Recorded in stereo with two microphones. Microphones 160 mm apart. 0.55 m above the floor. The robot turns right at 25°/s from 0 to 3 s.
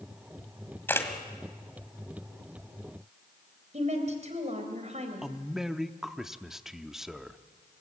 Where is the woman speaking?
45° right (ahead or behind), 3.5 m.